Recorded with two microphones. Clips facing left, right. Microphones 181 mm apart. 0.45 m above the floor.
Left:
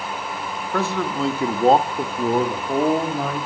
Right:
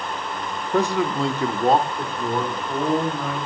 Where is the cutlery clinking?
No cutlery clinking in this recording.